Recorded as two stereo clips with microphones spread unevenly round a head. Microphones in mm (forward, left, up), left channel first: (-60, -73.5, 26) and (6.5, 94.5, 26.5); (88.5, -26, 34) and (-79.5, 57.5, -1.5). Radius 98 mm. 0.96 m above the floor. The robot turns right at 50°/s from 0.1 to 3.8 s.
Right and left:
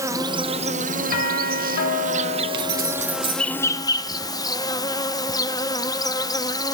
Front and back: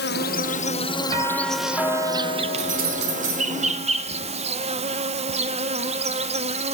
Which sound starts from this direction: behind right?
A doorbell, at 1.1 s.